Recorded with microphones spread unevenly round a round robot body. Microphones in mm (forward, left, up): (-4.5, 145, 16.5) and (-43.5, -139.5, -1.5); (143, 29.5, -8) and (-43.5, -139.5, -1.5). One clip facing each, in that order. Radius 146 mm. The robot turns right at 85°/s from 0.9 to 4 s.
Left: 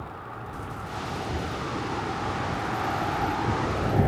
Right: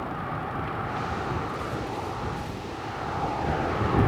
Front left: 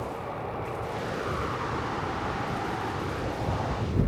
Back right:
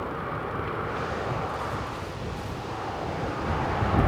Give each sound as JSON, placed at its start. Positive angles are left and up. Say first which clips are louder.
{"t": 0.0, "sound": "a vehicle", "louder": "right 7 dB, back right 2 dB", "azimuth_deg": -70}